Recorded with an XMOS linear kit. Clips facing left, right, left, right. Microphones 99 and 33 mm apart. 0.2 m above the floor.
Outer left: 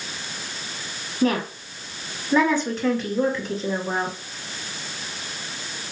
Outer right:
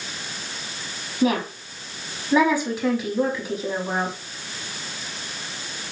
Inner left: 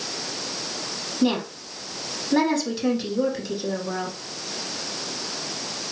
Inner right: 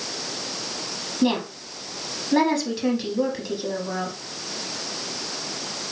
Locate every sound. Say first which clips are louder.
1.2 s a woman speaking: even, even; 10° right (ahead or behind), 1.2 m